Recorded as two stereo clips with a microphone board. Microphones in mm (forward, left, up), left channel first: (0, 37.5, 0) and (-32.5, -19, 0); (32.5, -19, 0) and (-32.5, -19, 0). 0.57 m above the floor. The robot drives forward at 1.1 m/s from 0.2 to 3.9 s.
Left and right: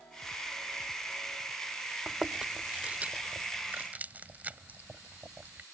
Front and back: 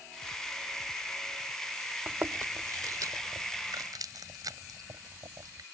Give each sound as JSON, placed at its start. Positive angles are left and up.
{"t": 2.1, "sound": "chewing", "azimuth_deg": 160}